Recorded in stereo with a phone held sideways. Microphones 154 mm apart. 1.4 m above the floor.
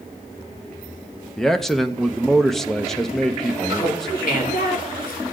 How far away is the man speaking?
About 0.7 m.